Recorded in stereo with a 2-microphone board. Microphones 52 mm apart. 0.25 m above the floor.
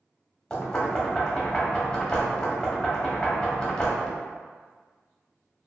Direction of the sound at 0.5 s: 15° left (ahead or behind).